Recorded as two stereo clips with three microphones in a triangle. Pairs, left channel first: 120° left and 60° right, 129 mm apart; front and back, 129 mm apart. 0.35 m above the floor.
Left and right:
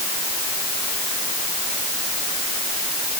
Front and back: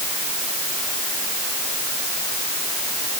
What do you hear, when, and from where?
Only background noise.